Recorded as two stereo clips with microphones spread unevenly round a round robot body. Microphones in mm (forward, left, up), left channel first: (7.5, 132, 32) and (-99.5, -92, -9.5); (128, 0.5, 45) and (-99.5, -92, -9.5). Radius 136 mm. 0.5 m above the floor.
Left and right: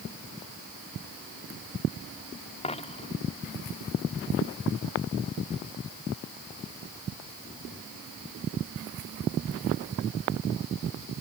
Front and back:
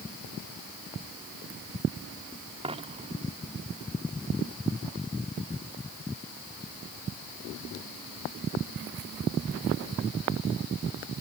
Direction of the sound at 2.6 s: 130° left.